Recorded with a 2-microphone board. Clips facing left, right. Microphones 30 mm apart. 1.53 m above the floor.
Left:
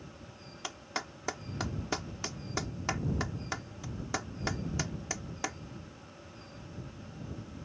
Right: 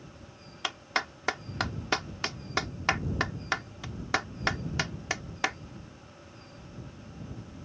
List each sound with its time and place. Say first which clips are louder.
0.6 s a clap: right 8 dB; 55° right (ahead or behind)